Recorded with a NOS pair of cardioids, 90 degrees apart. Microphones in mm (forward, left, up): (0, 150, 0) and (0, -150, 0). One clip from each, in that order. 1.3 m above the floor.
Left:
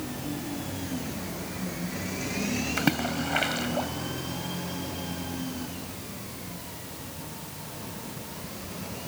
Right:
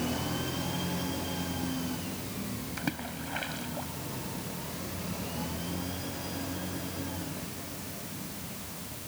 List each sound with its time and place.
2.8 s a splash: 60° left